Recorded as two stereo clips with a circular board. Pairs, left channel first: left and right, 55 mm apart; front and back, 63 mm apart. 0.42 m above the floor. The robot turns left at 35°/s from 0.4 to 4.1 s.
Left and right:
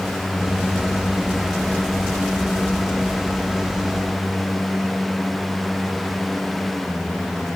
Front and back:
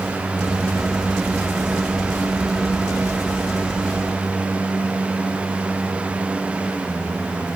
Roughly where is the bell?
I don't hear a bell.